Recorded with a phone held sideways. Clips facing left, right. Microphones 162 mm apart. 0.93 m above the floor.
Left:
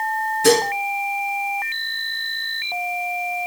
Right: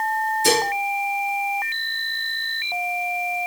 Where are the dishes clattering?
65° left (ahead or behind), 5.5 m.